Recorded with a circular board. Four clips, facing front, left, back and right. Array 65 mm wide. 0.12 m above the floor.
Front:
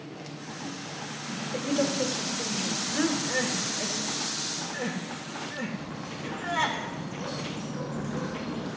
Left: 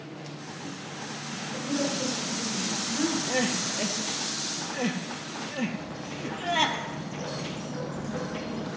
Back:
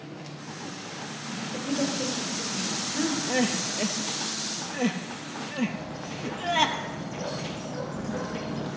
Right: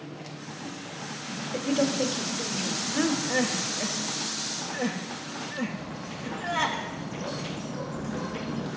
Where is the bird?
170° left, 3 m.